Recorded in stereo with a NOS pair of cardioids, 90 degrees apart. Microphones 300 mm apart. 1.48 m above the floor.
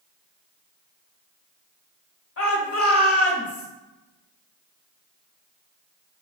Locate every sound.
2.4 s a shout: 50° left, 1.0 m